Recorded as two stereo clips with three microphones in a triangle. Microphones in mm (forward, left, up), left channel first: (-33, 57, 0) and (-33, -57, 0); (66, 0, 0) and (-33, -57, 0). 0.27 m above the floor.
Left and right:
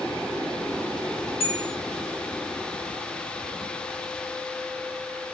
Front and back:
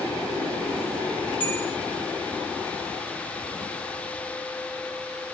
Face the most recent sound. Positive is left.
turn(degrees=105)